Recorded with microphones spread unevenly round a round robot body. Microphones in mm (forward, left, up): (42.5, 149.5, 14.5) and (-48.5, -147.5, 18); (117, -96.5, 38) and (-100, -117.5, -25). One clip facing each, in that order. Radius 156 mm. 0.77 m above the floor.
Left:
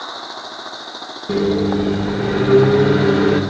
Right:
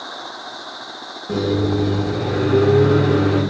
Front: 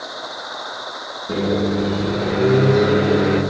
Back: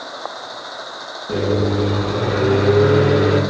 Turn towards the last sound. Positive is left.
turn(degrees=85)